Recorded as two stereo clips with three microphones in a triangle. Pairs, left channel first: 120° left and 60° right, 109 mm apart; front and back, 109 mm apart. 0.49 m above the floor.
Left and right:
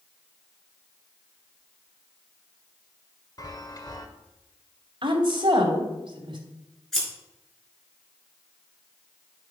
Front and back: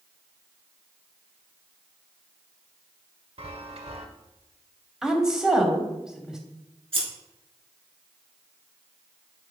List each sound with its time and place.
3.4 s a chime: 170° left, 1.2 m
5.0 s a woman speaking: 95° right, 2.5 m
6.9 s scissors: 155° right, 5 m